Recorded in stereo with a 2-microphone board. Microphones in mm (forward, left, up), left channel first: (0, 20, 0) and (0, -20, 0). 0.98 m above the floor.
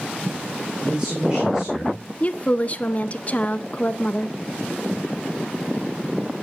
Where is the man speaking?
25° right (ahead or behind), 3 m; by 2.0 s 10° right (ahead or behind), 3 m.